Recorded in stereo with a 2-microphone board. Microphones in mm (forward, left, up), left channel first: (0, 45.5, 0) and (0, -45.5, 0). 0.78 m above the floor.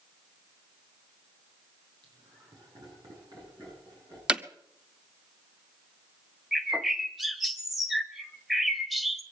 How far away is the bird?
About 1.2 m.